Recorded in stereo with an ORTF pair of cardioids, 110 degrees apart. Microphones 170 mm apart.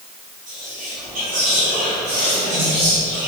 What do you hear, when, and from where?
0.5 s whispering: 50° right, 1.7 m